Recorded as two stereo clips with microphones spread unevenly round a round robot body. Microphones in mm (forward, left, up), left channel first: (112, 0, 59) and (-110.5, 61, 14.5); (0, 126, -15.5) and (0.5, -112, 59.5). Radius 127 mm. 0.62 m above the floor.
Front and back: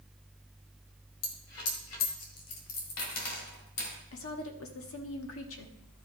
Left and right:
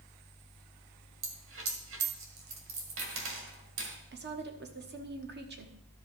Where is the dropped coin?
50° right, 1.9 m.